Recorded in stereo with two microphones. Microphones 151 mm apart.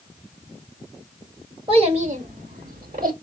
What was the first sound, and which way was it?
A child speaking, 40° right (ahead or behind).